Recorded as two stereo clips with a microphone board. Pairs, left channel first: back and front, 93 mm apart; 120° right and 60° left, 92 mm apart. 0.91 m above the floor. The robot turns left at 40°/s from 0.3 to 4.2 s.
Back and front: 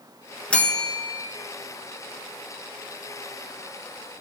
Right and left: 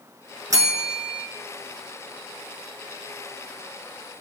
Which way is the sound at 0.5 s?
105° left.